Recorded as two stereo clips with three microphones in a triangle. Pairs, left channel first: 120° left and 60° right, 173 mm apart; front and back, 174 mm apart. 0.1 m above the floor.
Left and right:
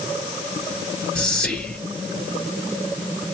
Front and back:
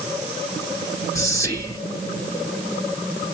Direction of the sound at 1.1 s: 45° left.